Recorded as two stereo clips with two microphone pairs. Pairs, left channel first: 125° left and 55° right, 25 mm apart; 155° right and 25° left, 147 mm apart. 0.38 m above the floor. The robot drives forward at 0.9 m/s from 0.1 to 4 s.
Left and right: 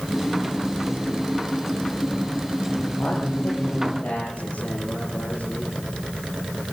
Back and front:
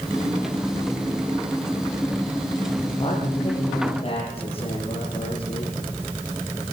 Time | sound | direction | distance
3.0 | a man speaking | 155° left | 8 m